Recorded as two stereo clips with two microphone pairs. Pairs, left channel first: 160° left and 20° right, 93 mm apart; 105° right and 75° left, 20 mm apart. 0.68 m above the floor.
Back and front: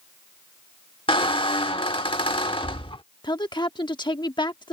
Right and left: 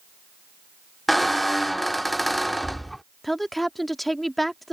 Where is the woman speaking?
Straight behind.